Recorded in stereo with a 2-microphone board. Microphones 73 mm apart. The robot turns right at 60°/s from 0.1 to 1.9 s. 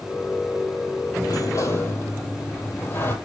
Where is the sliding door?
100° left, 2.0 m; by 3.1 s 140° left, 2.0 m.